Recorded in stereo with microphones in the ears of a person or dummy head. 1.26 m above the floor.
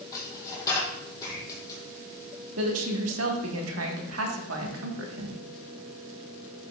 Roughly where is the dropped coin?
Left.